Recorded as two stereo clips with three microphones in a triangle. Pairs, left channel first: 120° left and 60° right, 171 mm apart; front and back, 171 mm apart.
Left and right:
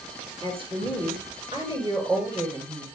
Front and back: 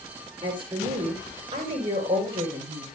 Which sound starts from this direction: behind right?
A woman speaking, at 0.4 s.